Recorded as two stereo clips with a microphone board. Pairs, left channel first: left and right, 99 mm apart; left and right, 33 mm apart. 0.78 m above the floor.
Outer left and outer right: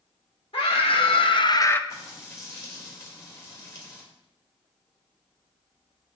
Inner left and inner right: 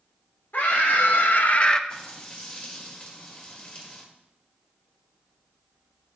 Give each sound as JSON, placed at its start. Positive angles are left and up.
{"t": 0.5, "sound": "a scream", "side_deg": 65, "distance_m": 1.6}
{"t": 1.9, "sound": "frying", "side_deg": 35, "distance_m": 2.0}